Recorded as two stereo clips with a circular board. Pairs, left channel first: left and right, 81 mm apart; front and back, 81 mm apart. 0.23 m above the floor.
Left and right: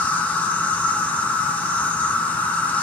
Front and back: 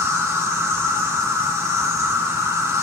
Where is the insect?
150° left, 0.9 m.